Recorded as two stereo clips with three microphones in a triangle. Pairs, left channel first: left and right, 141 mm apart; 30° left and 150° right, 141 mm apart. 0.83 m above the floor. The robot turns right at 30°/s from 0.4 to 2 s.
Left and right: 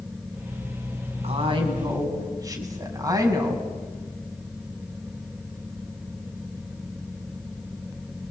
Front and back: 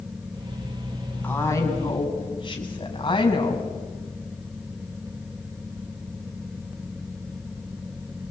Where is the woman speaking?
50° right, 5.5 m; by 3.7 s 25° right, 5.5 m.